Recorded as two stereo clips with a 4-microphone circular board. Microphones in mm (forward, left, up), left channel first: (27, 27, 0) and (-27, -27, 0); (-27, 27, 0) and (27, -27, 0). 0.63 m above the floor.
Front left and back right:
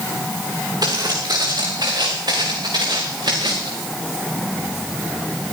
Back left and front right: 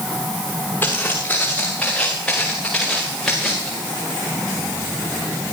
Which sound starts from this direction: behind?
Footsteps, at 0.8 s.